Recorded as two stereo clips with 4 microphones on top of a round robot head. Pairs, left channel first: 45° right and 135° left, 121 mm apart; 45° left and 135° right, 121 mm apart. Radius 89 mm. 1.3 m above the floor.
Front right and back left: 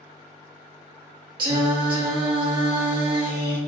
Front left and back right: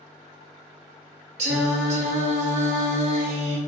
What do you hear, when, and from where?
1.4 s singing: 170° right, 0.9 m